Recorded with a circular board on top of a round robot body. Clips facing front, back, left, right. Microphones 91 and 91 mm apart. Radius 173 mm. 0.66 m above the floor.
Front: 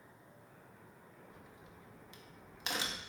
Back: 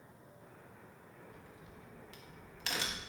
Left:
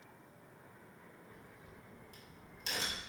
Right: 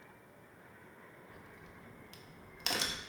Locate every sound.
1.3 s a crack: 70° right, 0.5 m